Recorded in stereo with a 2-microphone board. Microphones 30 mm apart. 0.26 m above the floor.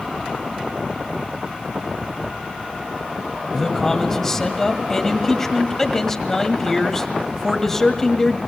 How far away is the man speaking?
About 1.6 m.